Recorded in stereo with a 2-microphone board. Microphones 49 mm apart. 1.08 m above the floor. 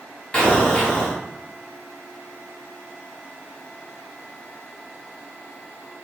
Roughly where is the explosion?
Left.